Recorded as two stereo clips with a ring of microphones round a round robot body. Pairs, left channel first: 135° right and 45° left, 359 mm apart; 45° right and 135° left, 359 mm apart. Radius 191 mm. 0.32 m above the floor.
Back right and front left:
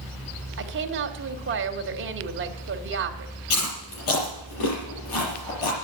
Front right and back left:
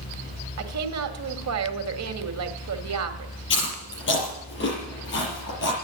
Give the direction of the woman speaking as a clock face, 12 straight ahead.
9 o'clock.